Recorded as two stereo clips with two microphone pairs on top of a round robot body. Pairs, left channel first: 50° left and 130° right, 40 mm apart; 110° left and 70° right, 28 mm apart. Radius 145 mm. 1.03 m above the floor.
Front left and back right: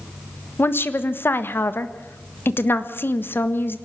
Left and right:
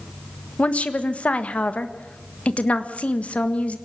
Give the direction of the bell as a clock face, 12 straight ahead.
I don't hear a bell.